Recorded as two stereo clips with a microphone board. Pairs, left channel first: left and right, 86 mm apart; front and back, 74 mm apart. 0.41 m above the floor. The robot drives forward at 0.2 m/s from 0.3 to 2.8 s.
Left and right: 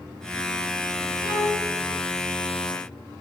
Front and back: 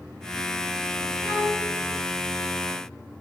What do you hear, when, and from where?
1.2 s a violin: 100° left, 1.3 m; by 1.7 s 105° left, 1.3 m